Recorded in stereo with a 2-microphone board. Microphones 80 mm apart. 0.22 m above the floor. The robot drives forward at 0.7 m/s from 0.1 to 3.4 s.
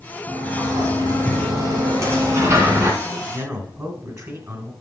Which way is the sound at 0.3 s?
45° right (ahead or behind).